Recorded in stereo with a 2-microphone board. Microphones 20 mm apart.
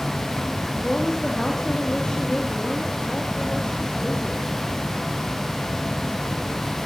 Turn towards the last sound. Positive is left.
turn(degrees=55)  # may be behind; listen again after turning